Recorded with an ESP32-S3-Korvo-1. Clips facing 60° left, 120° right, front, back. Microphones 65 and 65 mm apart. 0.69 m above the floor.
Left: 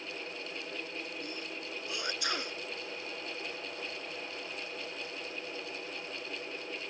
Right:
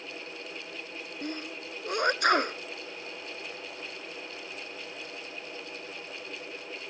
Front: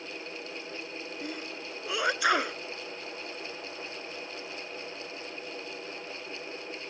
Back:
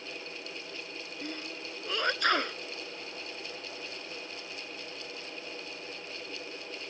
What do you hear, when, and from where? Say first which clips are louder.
1.2 s a sneeze: right 4 dB, back 1 dB; 80° right